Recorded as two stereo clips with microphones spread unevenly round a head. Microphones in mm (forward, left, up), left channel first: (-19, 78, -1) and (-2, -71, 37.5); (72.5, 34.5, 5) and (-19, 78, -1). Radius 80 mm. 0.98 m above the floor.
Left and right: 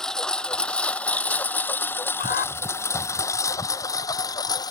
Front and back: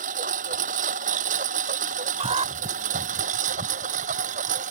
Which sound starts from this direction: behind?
A lawn mower, at 0.0 s.